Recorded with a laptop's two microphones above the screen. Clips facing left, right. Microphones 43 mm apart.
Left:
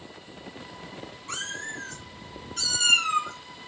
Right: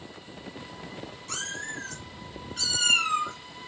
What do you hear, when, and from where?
1.3 s a cat meowing: 25° left (ahead or behind), 1.6 m; by 3.3 s 35° right (ahead or behind), 1.3 m